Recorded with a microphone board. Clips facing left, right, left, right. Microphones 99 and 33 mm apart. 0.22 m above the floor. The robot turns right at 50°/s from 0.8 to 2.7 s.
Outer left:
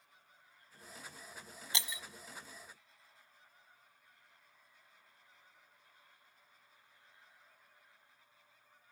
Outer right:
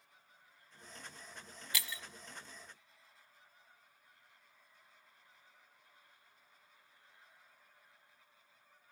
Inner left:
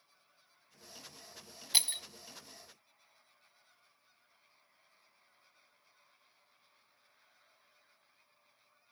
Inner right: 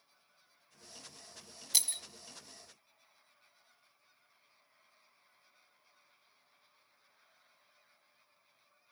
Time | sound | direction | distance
1.7 | breaking glass | 25° left (ahead or behind) | 1.0 m